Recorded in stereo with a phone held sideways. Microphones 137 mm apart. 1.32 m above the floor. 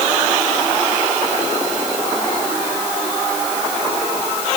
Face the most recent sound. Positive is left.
No sound to turn to.